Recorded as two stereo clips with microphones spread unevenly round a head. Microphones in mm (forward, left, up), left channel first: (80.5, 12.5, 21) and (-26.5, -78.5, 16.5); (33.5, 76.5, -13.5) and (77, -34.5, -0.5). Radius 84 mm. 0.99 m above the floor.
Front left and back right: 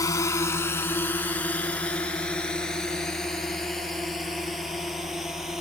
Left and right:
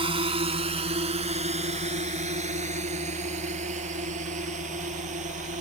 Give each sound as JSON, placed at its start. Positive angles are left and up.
{"t": 0.0, "sound": "a drone", "azimuth_deg": -25}